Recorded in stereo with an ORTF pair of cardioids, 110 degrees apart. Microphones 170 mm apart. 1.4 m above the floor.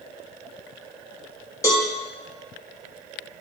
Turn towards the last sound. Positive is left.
turn(degrees=20)